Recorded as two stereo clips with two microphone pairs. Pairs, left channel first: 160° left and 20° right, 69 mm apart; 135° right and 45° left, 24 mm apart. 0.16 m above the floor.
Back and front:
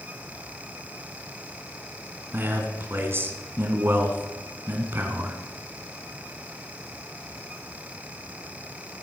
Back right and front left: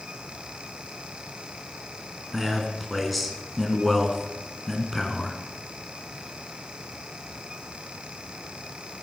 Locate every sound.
2.3 s a man speaking: 45° right, 1.9 m